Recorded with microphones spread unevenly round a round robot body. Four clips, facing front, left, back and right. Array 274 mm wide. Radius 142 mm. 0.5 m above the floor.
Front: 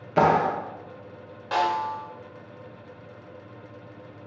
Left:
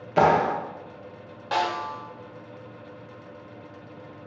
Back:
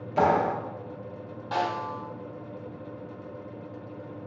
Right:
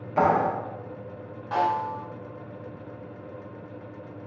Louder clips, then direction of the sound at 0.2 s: Left 2 dB, front 3 dB; 40° left.